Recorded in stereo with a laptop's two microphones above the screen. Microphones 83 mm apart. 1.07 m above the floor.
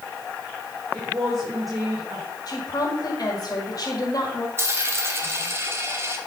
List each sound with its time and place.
0.9 s a woman speaking: 45° right (ahead or behind), 4 m
2.5 s a woman speaking: 50° left (ahead or behind), 2 m
4.6 s a dropped coin: 30° right (ahead or behind), 1.2 m